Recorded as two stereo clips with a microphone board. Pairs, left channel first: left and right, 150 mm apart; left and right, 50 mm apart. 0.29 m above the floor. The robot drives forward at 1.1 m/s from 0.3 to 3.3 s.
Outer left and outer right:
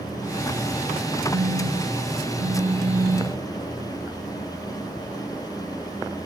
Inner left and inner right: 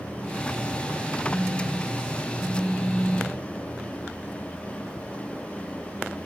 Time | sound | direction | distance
1.3 | a phone buzzing | 85° right | 1.9 m